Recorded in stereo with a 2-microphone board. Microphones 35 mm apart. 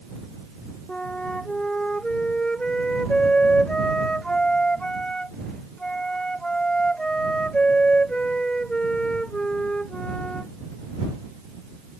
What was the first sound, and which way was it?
A flute, 25° left (ahead or behind).